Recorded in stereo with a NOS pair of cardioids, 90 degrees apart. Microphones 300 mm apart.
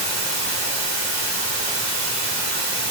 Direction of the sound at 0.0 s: 55° right.